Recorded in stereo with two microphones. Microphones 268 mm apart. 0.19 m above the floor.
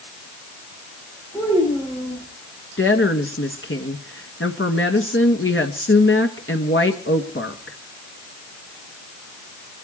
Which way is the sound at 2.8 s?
50° left (ahead or behind).